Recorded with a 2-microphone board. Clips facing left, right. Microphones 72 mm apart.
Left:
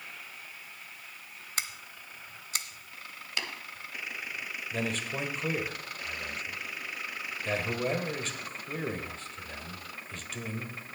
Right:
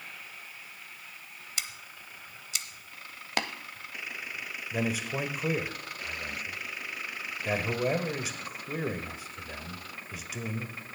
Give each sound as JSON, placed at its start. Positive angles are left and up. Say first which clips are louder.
{"t": 1.6, "sound": "scissors", "louder": "left 3 dB", "side_deg": 40, "distance_m": 0.8}
{"t": 3.4, "sound": "tapping", "louder": "right 6 dB", "side_deg": -55, "distance_m": 0.7}
{"t": 4.7, "sound": "a man speaking", "louder": "right 3 dB", "side_deg": -10, "distance_m": 1.0}